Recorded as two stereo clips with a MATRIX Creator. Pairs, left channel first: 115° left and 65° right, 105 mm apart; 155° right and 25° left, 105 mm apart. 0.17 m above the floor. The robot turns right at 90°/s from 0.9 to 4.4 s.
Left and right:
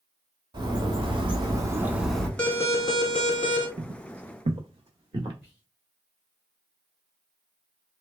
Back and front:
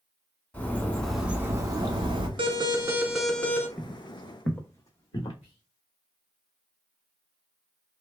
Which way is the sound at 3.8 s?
80° right.